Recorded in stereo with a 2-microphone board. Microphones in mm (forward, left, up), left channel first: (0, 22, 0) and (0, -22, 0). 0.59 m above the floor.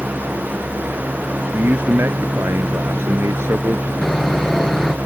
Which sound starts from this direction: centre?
Sawing, at 4.0 s.